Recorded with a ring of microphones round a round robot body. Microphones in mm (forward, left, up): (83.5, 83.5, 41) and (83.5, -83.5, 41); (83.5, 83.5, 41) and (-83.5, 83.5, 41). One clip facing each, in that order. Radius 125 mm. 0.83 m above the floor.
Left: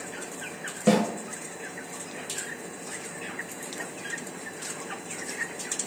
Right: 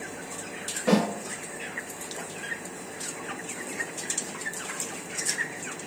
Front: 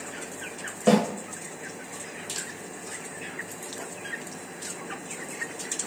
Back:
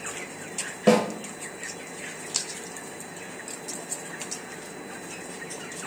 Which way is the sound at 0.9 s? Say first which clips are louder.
Left 1 dB, back 1 dB; 100° left.